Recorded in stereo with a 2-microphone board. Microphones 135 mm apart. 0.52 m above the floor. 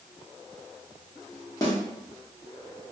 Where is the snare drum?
25° left (ahead or behind), 0.9 m.